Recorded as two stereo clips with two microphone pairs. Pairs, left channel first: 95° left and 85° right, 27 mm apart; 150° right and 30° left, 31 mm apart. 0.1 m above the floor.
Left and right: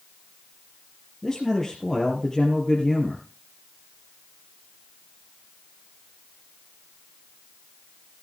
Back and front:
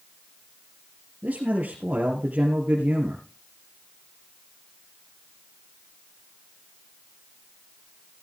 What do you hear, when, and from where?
1.2 s a man speaking: 25° left, 2.5 m